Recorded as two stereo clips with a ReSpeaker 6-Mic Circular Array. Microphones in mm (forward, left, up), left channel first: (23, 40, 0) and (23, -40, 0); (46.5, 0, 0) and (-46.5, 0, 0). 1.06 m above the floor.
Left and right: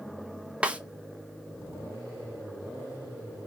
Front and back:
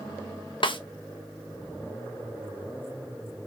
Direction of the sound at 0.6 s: 15° right.